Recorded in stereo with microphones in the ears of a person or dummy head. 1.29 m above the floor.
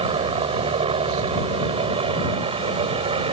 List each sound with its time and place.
0.0 s a helicopter: 30° right (ahead or behind)